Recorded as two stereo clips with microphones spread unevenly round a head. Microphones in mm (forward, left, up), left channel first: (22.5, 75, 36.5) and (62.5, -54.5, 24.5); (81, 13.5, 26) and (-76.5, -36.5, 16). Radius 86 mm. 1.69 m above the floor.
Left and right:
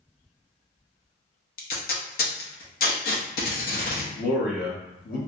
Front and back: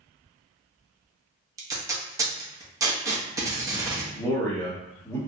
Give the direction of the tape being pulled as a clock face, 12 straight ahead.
8 o'clock.